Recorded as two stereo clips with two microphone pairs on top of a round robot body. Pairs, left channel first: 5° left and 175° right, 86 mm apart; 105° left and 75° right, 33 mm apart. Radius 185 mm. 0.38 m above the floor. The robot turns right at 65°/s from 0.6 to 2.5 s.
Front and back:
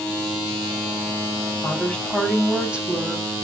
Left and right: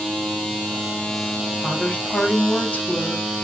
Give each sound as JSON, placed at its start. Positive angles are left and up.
{"t": 1.6, "sound": "a woman speaking", "azimuth_deg": 55, "distance_m": 1.3}